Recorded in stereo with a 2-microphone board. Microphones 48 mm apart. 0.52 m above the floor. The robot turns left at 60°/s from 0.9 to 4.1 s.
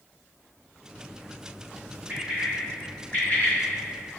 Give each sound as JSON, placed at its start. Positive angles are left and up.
{"t": 2.1, "sound": "a bird", "side_deg": -35, "distance_m": 1.5}